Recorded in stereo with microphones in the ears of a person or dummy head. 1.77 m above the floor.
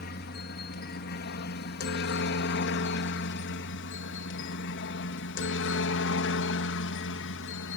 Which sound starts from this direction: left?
A helicopter, at 0.0 s.